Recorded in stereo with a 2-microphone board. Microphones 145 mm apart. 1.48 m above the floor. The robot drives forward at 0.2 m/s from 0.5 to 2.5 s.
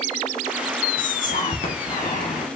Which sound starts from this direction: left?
Whispering, at 1.0 s.